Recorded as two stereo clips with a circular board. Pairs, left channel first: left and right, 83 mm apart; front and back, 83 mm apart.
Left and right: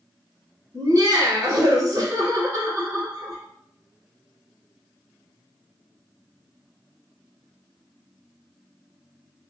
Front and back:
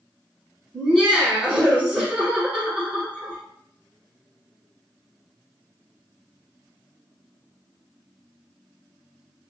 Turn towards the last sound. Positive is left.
turn(degrees=-90)